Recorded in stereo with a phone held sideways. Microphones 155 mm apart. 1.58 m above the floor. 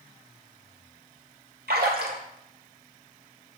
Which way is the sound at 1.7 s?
80° right.